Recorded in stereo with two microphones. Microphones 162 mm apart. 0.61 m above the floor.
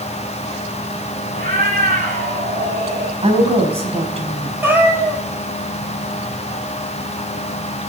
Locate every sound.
1.3 s a cat meowing: 75° right (ahead or behind), 6.5 m; by 3.1 s 55° right (ahead or behind), 6 m
3.2 s a woman speaking: 40° right (ahead or behind), 5 m
4.6 s a cat meowing: 15° right (ahead or behind), 4 m